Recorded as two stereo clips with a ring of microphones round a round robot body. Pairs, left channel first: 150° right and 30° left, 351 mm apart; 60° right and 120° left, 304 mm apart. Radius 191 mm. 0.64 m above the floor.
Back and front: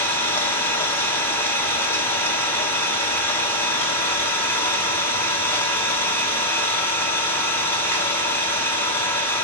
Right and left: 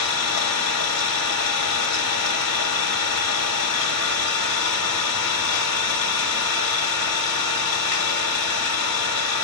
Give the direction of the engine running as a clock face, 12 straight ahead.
2 o'clock.